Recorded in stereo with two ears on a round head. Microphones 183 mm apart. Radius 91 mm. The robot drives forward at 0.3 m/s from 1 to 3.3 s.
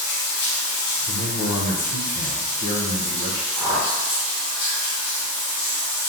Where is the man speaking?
60° left (ahead or behind), 0.6 m; by 3.5 s 40° left (ahead or behind), 0.8 m.